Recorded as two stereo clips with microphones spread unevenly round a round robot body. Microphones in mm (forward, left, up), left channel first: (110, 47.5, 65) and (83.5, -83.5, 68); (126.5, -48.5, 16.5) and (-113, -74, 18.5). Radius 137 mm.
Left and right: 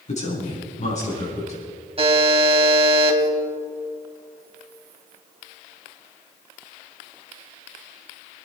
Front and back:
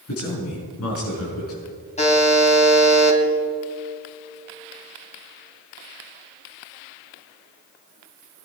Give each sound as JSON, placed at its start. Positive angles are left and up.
{"t": 0.1, "sound": "a man speaking", "azimuth_deg": 45, "distance_m": 6.0}
{"t": 2.0, "sound": "a buzzer", "azimuth_deg": -55, "distance_m": 3.0}